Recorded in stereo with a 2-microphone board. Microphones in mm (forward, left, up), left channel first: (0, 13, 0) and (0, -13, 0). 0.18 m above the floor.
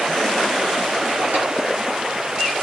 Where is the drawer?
85° right, 2 m.